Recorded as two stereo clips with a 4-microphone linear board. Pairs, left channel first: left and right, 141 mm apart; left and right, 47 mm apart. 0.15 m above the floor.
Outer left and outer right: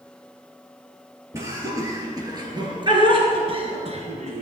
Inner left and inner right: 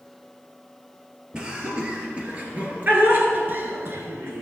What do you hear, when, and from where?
1.3 s laughter: 20° right (ahead or behind), 2.5 m; by 4.4 s 50° right (ahead or behind), 1.8 m